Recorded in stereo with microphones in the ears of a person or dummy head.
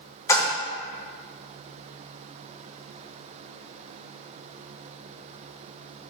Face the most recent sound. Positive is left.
turn(degrees=15)  # may be behind; listen again after turning